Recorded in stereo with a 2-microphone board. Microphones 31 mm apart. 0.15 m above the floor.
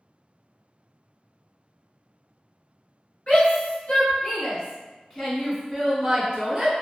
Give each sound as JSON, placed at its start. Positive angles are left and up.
{"t": 3.3, "sound": "a shout", "side_deg": 40, "distance_m": 1.8}